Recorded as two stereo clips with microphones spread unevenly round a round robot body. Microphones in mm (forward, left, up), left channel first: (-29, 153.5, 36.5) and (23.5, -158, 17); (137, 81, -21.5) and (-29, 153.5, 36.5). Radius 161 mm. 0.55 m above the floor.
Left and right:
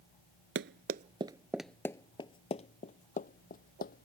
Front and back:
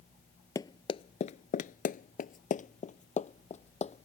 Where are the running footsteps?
115° right; by 4.1 s 40° left.